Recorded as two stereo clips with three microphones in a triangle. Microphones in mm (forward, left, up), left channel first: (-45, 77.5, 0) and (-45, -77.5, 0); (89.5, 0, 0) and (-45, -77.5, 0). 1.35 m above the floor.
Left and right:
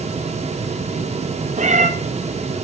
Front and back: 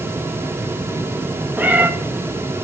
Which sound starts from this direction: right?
A cat meowing, at 1.6 s.